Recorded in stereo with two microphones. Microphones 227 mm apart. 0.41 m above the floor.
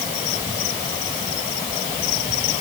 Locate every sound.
Only background noise.